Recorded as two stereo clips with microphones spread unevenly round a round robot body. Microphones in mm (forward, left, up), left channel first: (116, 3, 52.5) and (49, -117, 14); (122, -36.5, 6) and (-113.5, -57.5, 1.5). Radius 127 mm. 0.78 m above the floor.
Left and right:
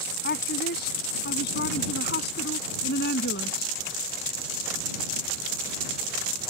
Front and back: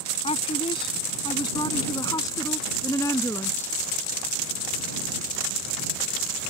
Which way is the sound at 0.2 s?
75° left.